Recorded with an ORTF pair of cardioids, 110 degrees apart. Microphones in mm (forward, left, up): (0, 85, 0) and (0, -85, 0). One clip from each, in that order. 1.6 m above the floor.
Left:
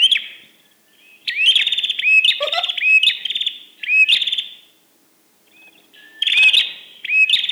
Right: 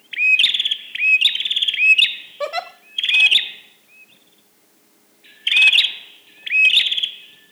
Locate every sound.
2.4 s a giggle: 5° left, 1.9 m